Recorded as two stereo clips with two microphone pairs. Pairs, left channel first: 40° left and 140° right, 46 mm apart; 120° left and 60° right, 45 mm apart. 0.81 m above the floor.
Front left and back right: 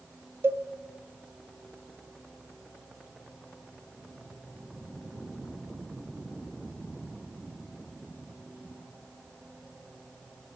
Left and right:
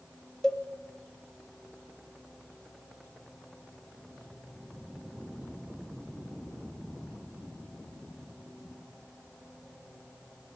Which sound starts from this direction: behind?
A cowbell, at 0.4 s.